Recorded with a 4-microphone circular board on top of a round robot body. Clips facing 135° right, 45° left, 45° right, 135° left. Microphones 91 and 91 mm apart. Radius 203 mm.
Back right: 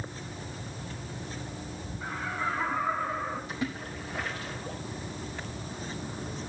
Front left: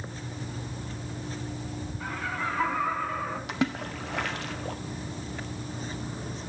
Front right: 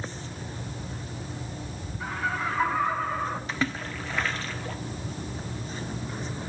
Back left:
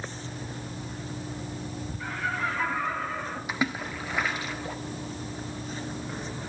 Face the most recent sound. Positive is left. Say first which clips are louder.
# front left 5 dB, even
turn(degrees=55)